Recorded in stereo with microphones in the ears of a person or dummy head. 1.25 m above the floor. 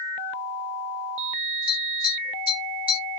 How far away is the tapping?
About 1.4 m.